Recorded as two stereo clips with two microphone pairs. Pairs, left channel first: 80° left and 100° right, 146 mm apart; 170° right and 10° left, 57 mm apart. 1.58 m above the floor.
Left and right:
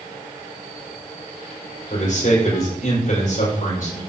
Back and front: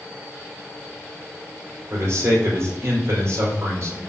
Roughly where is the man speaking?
Ahead left.